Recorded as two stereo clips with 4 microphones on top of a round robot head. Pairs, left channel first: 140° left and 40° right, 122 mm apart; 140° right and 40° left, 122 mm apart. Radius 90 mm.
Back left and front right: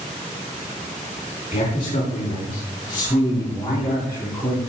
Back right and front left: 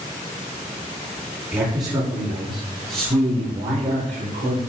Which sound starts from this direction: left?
A man speaking, at 1.5 s.